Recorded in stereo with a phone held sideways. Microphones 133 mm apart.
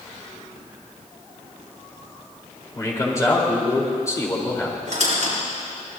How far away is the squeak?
About 6.5 m.